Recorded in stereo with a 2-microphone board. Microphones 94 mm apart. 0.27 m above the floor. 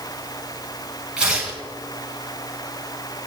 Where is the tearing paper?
10° right (ahead or behind), 5 m.